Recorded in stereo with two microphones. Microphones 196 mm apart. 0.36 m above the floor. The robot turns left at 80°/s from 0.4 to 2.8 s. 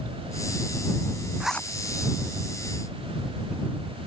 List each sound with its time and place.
1.4 s a zipper: 5° right (ahead or behind); by 1.7 s 15° left (ahead or behind)